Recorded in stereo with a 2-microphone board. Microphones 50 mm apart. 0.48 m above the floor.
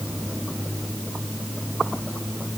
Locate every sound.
Only background noise.